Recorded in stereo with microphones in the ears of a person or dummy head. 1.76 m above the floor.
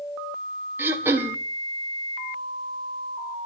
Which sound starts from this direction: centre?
Throat clearing, at 0.8 s.